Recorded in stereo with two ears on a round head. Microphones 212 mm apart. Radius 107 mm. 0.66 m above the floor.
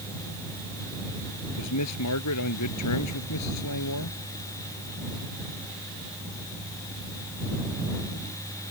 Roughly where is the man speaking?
Left.